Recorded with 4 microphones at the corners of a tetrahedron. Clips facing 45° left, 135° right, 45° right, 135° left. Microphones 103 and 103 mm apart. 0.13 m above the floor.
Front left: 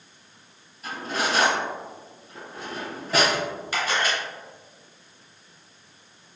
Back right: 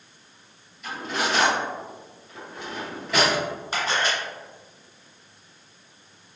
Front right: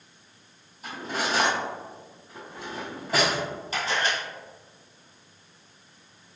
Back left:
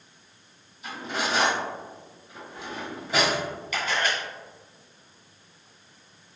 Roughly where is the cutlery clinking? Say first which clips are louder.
Even, even; ahead.